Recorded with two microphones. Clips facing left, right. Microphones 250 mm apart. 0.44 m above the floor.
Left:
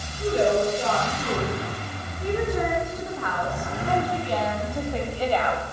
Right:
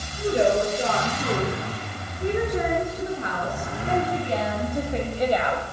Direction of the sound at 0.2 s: 20° right (ahead or behind).